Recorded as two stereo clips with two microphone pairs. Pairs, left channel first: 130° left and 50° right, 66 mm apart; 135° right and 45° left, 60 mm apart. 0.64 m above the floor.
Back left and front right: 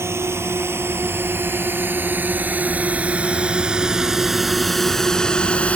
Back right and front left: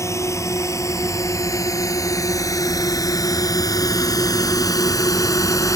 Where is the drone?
100° right; by 5.8 s 160° right.